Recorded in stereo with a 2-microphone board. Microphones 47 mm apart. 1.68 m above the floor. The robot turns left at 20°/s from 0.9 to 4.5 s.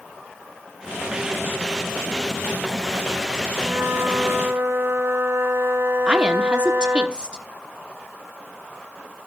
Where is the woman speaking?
20° right (ahead or behind), 1.1 m.